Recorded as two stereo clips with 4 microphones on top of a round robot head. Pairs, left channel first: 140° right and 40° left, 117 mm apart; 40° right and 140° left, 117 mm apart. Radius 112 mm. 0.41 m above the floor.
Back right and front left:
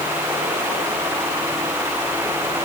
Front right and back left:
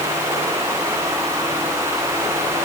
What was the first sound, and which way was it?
Only background noise.